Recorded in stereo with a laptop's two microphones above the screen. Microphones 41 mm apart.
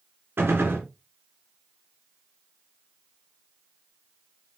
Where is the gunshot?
75° right (ahead or behind), 3.5 m.